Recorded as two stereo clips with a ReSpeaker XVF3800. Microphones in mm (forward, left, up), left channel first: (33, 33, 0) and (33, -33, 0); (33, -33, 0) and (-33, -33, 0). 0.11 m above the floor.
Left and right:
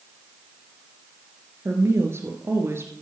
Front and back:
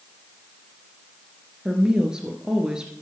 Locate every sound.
1.6 s a woman speaking: 105° right, 1.9 m